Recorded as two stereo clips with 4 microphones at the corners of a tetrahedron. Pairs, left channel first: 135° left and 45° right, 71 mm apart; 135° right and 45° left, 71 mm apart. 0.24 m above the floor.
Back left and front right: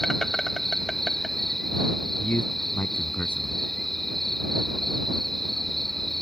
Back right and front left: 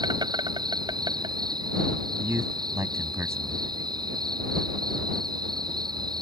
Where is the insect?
50° left.